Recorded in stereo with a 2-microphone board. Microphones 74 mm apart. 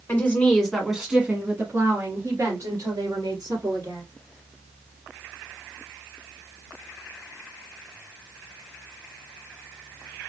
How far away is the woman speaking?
About 1.6 m.